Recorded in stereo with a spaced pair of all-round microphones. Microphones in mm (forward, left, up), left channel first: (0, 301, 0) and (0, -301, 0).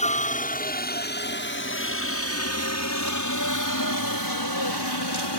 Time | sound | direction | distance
0.0 | a helicopter | 10° left (ahead or behind) | ?